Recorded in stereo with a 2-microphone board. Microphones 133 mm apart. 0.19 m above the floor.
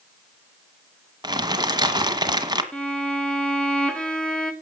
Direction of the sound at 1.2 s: 30° right (ahead or behind).